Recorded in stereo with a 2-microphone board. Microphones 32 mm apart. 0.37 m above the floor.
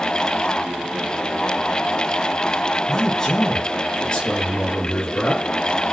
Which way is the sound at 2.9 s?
20° left (ahead or behind).